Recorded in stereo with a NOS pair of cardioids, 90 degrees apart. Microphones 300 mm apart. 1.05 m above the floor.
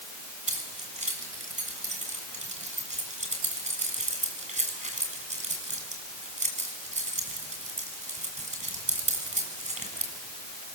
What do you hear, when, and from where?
0.5 s keys jangling: 25° right, 7.5 m